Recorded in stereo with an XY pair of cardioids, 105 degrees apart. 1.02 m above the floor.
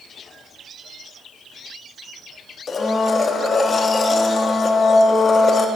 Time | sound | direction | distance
2.7 | a blender | 45° left | 1.0 m